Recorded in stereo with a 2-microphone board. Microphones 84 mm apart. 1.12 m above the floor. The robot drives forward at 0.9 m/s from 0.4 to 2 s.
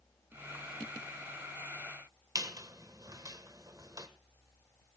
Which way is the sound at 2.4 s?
50° right (ahead or behind).